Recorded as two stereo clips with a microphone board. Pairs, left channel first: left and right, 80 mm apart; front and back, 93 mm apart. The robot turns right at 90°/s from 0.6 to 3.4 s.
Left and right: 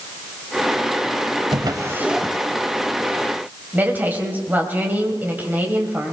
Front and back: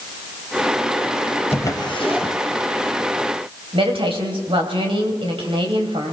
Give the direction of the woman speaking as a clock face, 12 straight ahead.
5 o'clock.